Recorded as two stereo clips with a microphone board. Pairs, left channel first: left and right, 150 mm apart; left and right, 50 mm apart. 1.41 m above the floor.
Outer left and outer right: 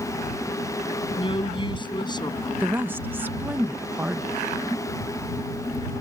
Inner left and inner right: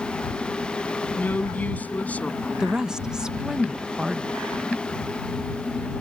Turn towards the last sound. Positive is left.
turn(degrees=-15)  # may be behind; listen again after turning